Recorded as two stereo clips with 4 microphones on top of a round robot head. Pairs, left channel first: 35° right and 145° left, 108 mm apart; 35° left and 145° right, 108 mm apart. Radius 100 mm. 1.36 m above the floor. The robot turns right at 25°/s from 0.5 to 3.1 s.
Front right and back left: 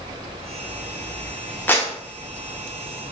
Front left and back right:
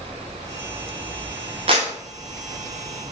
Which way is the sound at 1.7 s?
110° right.